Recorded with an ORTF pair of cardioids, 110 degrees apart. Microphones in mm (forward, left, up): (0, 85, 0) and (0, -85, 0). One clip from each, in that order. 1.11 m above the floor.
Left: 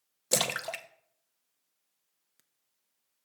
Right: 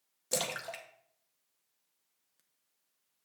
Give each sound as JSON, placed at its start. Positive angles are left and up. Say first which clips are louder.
{"t": 0.3, "sound": "a splash", "louder": "left 6 dB", "azimuth_deg": 35, "distance_m": 0.6}